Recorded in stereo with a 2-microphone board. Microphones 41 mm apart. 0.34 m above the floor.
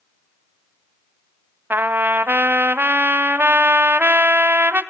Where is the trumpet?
60° right (ahead or behind), 1.2 m.